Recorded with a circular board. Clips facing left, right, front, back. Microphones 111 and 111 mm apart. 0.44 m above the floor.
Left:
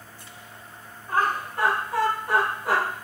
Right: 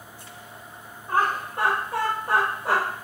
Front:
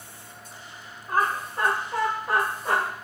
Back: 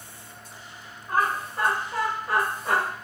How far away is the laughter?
About 1.3 m.